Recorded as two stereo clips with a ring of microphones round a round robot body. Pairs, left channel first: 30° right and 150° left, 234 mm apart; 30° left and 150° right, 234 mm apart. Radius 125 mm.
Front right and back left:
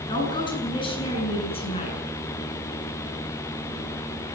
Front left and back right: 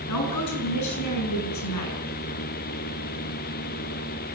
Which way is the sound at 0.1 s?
45° left.